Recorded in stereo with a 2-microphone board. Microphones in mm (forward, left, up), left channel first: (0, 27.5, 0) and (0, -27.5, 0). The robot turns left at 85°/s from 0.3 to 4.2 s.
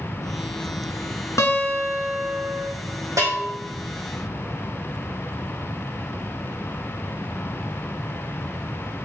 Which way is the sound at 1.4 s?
75° left.